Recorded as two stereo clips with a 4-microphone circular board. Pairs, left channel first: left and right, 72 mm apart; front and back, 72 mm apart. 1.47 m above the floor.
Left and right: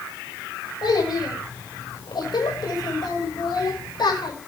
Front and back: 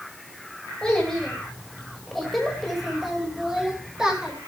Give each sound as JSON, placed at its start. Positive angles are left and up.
{"t": 0.8, "sound": "a child speaking", "azimuth_deg": 80, "distance_m": 6.0}